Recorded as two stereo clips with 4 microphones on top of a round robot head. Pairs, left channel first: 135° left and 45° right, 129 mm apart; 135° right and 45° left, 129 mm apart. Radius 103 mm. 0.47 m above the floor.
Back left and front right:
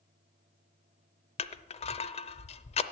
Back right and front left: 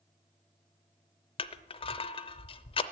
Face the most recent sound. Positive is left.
turn(degrees=175)